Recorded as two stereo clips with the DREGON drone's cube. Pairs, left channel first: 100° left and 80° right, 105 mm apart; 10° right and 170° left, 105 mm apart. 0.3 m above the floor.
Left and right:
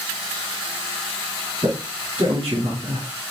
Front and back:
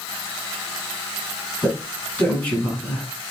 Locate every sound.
1.6 s a man speaking: 85° right, 2.5 m